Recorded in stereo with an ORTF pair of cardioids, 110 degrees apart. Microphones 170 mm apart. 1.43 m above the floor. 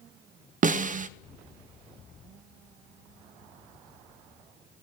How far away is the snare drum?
About 0.5 m.